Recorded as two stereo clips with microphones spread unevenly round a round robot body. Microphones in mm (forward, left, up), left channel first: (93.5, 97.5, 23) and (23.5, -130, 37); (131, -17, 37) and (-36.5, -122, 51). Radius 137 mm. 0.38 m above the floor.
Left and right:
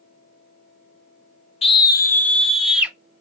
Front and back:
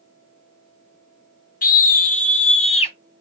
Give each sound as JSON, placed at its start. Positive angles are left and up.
{"t": 1.6, "sound": "a scream", "azimuth_deg": 20, "distance_m": 1.1}